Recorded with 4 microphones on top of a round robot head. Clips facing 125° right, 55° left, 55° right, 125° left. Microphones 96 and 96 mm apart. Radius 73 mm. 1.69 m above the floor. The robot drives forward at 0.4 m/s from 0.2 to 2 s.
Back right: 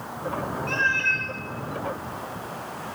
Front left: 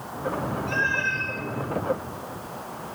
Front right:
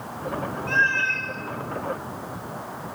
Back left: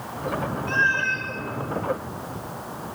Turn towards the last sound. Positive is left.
turn(degrees=-160)